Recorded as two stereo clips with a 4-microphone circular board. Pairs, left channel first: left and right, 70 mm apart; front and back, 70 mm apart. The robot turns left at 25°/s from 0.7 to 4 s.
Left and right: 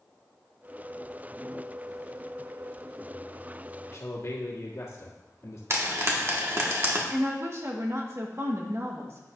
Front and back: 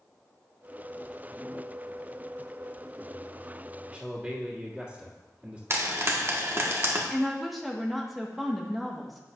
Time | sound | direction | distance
3.9 | a man speaking | 105° left | 1.8 m
5.7 | frying | 135° right | 1.4 m
7.1 | a woman speaking | 90° right | 1.2 m